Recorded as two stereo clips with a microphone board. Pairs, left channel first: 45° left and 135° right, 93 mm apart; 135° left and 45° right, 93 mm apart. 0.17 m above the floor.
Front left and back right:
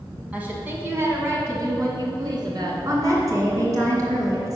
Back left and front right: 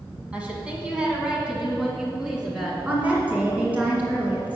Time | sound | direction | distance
0.3 | a woman speaking | 95° right | 1.5 m
2.9 | a woman speaking | 110° right | 2 m